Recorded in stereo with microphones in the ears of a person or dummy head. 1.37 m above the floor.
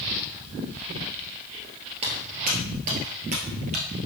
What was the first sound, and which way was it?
Footsteps, 25° right (ahead or behind).